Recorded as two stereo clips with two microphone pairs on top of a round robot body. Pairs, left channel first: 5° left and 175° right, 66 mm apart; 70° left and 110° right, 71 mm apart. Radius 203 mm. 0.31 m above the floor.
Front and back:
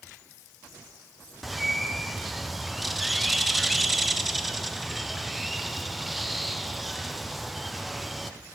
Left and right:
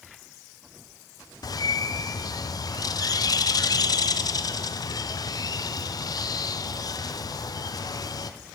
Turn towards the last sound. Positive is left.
turn(degrees=100)